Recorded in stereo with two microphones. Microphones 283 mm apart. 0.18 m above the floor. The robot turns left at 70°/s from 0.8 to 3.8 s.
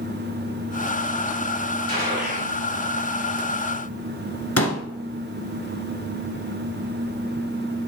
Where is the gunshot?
115° right, 3 m; by 2.5 s 160° right, 3 m.